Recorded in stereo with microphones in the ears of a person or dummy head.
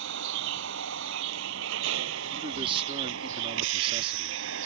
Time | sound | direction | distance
0.0 | a vehicle | 70° right (ahead or behind) | ?
2.3 | a man speaking | 35° right (ahead or behind) | ?